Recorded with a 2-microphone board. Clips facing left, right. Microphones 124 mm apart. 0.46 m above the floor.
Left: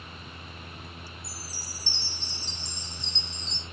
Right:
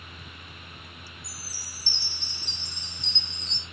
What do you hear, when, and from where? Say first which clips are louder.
1.2 s a chime: left 3 dB; 65° right (ahead or behind), 3.5 m